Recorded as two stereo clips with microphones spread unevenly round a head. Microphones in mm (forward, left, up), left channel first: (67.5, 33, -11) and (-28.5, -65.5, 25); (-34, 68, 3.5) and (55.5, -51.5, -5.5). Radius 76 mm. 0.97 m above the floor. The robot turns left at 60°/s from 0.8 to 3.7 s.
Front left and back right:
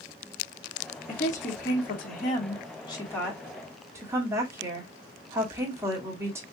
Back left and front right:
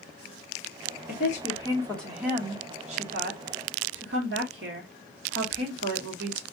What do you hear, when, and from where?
1.1 s a woman speaking: 95° left, 2.5 m; by 6.4 s 60° right, 2.5 m